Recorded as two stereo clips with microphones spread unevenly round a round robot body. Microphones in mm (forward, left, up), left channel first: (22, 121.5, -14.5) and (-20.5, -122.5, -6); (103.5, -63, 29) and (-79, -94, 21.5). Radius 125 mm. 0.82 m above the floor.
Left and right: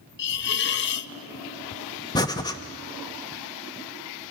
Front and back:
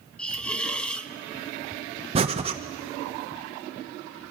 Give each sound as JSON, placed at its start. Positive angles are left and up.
{"t": 0.2, "sound": "a hiss", "azimuth_deg": 95, "distance_m": 0.5}
{"t": 2.1, "sound": "breathing", "azimuth_deg": 145, "distance_m": 1.0}